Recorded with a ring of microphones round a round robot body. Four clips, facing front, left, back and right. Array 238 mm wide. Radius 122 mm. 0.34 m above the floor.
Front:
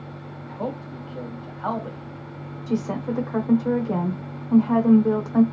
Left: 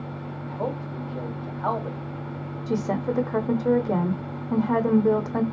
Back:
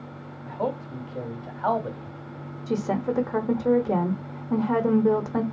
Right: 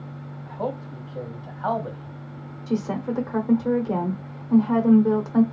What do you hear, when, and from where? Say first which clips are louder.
0.5 s a man speaking: right 1 dB, back 2 dB; straight behind, 1.2 m
2.7 s a woman speaking: even, even; 140° left, 0.9 m